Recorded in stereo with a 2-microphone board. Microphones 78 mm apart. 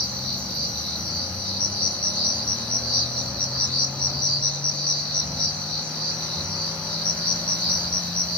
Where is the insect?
15° left (ahead or behind), 0.8 m.